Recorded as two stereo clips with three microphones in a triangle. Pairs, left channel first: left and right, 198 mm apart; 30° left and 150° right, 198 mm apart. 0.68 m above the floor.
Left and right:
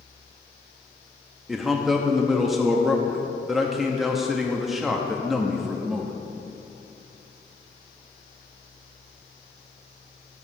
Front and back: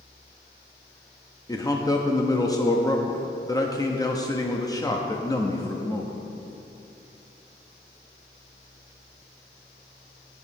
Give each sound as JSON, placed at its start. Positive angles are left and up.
{"t": 1.5, "sound": "a man speaking", "azimuth_deg": -5, "distance_m": 0.6}